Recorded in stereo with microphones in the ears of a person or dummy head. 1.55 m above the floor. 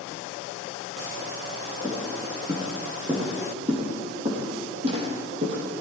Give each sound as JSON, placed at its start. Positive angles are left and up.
{"t": 1.8, "sound": "footsteps", "side_deg": -10, "distance_m": 4.5}